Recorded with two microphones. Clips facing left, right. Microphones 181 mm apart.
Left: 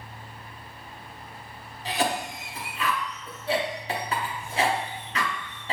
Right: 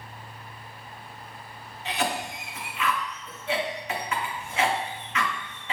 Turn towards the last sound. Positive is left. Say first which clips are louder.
# left 2 dB
turn(degrees=35)  # may be behind; listen again after turning